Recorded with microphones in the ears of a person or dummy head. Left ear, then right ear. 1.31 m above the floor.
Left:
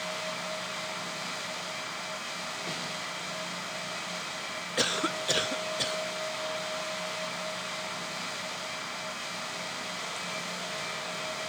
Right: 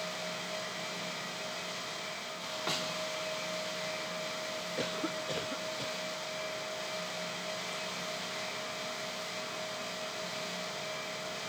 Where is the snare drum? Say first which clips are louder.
Right 5 dB; 25° right (ahead or behind), 3.5 m.